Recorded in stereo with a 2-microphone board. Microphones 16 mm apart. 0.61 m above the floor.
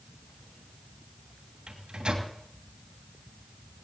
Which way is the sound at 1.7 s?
70° right (ahead or behind).